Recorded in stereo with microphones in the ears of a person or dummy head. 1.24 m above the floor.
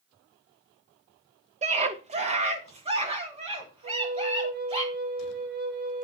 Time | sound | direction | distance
1.6 | a scream | 30° right (ahead or behind) | 1.1 m
3.8 | a flute | 55° right (ahead or behind) | 4 m